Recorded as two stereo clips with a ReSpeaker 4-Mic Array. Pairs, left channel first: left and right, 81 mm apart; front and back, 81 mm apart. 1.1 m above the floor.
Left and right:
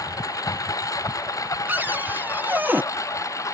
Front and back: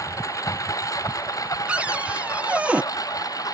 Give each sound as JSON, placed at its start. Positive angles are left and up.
{"t": 0.0, "sound": "a lawn mower", "azimuth_deg": 45}
{"t": 1.7, "sound": "a cupboard door", "azimuth_deg": -125}